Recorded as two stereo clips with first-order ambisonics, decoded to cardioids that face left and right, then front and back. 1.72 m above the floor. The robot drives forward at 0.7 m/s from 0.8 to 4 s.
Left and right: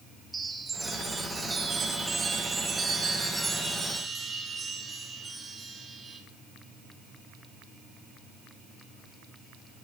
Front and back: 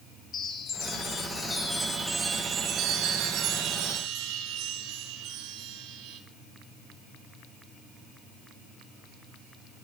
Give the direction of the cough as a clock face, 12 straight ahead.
I don't hear a cough.